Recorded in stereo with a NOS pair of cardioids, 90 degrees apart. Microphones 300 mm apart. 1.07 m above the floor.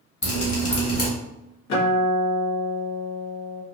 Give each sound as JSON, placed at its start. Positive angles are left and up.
{"t": 0.2, "sound": "dripping", "azimuth_deg": 35, "distance_m": 1.8}
{"t": 1.7, "sound": "a guitar", "azimuth_deg": 60, "distance_m": 1.4}